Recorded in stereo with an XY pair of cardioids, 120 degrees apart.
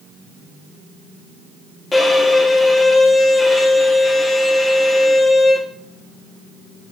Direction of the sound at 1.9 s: 25° left.